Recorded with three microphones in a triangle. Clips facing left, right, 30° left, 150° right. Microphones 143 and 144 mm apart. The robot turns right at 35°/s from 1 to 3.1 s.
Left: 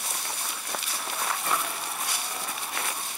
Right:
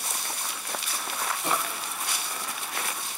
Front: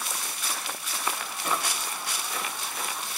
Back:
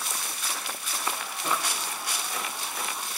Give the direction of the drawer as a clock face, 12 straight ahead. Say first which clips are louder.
Right 2 dB, even; 3 o'clock.